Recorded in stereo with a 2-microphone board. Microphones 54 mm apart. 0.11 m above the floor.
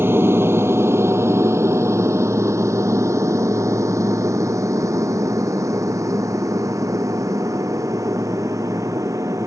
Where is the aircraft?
45° right (ahead or behind); by 9.5 s 80° right.